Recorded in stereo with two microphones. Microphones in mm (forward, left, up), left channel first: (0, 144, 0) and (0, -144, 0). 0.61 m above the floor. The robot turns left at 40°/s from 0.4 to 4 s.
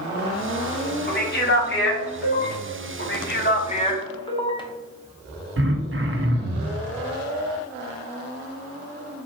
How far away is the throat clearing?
About 0.6 m.